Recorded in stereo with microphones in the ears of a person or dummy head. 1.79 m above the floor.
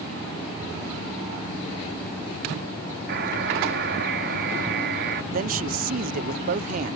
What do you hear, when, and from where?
3.1 s a buzzer: 60° right (ahead or behind)
5.3 s a man speaking: 45° right (ahead or behind)